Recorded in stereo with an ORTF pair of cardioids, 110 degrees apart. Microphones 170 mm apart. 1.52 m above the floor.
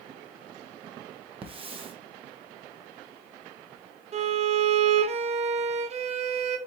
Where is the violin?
40° right, 0.7 m.